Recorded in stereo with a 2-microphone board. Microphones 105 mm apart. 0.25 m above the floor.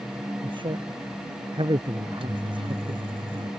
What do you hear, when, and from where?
0.4 s a man speaking: 50° right (ahead or behind)
2.0 s a microwave: 60° right (ahead or behind)